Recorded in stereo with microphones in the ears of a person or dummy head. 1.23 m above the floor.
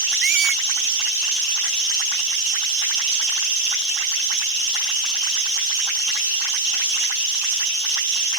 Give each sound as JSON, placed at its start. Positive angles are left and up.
{"t": 0.2, "sound": "a squeak", "side_deg": -55}